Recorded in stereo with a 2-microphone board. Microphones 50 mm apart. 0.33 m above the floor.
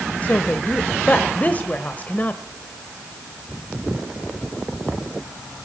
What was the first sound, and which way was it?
A woman speaking, 35° left (ahead or behind).